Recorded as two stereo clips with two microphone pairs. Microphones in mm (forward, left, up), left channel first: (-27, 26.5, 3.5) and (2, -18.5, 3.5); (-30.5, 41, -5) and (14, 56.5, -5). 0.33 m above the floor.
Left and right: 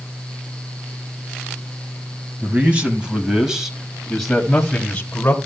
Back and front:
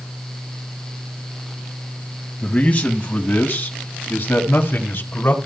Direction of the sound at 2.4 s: 110° right.